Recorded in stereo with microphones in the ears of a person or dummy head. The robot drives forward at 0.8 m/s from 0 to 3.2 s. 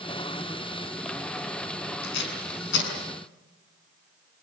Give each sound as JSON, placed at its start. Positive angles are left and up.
{"t": 2.0, "sound": "tape being pulled", "side_deg": 65, "distance_m": 6.5}